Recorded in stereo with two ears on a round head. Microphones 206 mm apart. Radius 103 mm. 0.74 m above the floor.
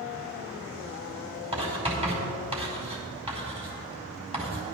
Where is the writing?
25° right (ahead or behind), 4.5 m.